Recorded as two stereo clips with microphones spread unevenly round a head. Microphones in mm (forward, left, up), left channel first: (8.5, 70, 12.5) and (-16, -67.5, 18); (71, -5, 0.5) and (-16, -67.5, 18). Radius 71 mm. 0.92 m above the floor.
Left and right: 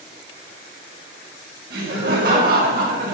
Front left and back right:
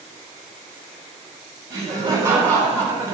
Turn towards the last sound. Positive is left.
turn(degrees=-85)